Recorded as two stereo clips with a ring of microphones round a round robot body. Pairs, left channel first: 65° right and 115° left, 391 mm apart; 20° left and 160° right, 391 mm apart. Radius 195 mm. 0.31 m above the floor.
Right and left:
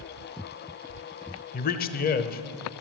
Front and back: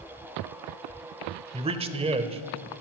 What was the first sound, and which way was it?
A man speaking, 100° right.